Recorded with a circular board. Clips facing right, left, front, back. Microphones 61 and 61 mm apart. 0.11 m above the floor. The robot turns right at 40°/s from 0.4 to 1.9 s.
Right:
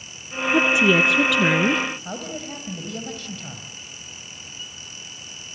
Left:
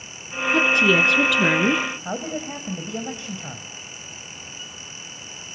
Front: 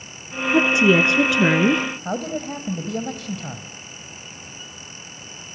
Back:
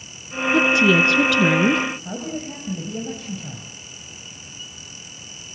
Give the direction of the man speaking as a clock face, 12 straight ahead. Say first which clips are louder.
Left 4 dB, front 3 dB; 11 o'clock.